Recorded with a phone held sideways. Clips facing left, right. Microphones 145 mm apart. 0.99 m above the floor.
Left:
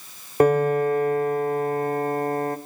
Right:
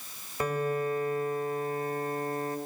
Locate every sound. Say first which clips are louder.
0.4 s a piano: left 11 dB; 60° left (ahead or behind), 1.1 m